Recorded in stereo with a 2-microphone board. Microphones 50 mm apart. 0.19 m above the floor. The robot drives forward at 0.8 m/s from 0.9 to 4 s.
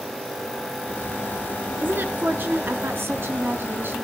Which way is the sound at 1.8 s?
45° right (ahead or behind).